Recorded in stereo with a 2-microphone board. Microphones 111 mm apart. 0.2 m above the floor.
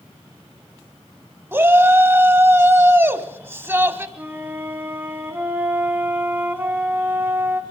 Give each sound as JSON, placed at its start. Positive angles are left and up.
{"t": 1.5, "sound": "a shout", "side_deg": -20, "distance_m": 1.2}
{"t": 4.2, "sound": "a flute", "side_deg": -20, "distance_m": 1.5}